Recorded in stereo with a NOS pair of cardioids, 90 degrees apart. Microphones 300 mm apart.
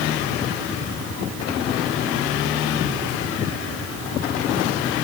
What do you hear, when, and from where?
Only background noise.